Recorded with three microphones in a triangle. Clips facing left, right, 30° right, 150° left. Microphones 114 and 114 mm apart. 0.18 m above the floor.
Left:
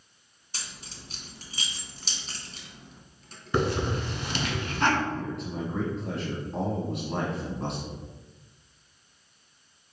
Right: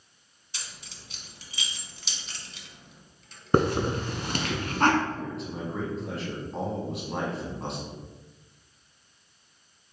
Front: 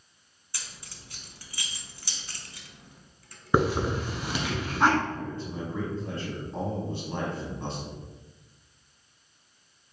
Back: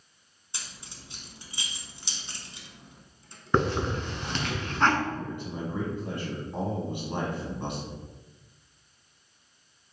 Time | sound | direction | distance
0.5 | keys jangling | 95° left | 0.9 m
3.5 | a hiss | 110° right | 0.7 m
5.1 | a man speaking | straight behind | 1.1 m